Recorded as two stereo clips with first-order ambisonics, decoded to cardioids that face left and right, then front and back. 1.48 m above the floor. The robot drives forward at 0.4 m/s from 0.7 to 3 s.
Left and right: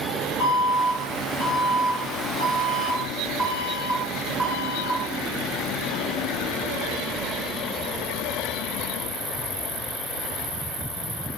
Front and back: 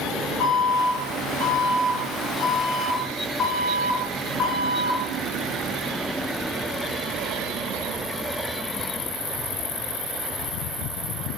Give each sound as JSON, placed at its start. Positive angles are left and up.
{"t": 0.4, "sound": "an alarm", "azimuth_deg": 25, "distance_m": 1.5}